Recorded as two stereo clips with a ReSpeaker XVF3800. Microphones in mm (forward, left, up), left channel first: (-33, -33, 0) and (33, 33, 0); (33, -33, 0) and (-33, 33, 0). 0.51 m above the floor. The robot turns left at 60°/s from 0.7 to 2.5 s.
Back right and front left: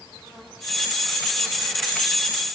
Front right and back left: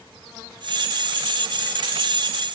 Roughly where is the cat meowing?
No cat meowing in this recording.